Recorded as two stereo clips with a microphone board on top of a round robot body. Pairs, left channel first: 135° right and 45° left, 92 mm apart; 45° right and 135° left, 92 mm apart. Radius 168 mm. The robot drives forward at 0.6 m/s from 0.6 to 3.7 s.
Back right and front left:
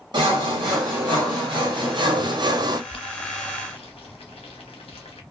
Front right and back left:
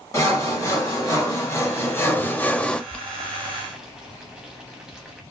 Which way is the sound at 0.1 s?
10° left.